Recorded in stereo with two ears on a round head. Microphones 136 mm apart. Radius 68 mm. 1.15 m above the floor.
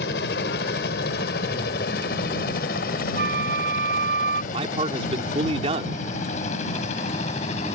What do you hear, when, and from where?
0.0 s a helicopter: 75° left (ahead or behind); by 7.8 s 45° left (ahead or behind)
3.1 s a flute: 65° right (ahead or behind)
4.5 s a man speaking: 40° right (ahead or behind)